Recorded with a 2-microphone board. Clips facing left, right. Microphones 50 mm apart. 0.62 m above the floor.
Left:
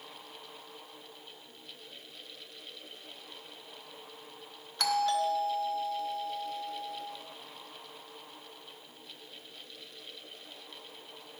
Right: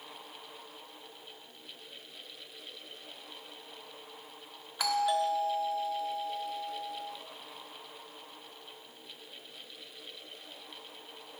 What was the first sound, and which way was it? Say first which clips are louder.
A doorbell: even; 15° right (ahead or behind).